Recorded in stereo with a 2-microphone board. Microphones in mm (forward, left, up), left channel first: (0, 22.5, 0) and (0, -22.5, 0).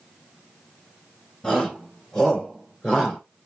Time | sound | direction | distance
1.4 | a shout | 10° left (ahead or behind) | 4.5 m